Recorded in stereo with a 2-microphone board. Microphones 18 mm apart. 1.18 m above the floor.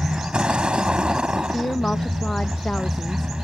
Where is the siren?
No siren in this recording.